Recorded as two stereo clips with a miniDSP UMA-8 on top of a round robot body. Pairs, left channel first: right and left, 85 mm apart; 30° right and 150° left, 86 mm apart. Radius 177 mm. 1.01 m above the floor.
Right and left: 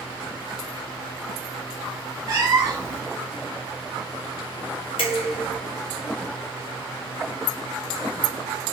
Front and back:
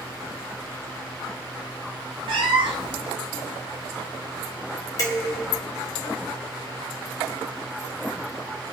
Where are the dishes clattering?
80° right, 1.2 m.